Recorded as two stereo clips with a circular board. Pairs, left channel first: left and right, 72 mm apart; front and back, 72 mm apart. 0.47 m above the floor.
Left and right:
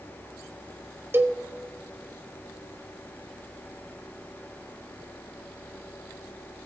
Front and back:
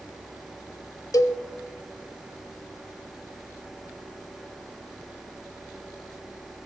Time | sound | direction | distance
1.1 | a cowbell | 35° right | 0.7 m